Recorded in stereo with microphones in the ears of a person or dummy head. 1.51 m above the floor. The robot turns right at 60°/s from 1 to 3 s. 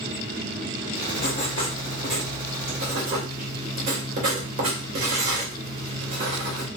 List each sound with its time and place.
1.2 s writing: 120° left, 1.6 m; by 6.7 s 130° right, 1.6 m